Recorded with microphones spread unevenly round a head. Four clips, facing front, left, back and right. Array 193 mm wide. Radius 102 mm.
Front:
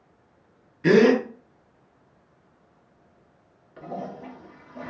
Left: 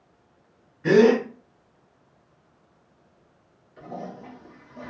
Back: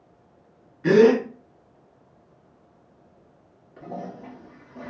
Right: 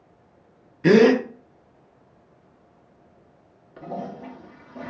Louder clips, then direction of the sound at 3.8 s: Right 4 dB, front 1 dB; 80° right.